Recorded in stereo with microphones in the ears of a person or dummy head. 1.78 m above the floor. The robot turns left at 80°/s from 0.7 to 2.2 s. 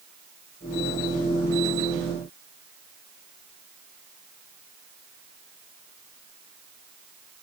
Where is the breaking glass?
No breaking glass in this recording.